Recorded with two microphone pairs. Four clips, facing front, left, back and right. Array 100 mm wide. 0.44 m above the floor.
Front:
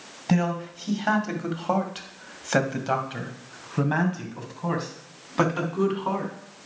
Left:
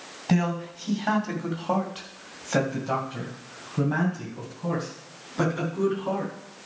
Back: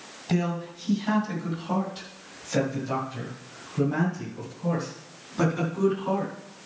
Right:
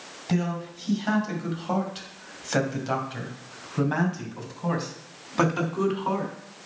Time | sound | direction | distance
0.3 | a man speaking | 25° left | 2.5 m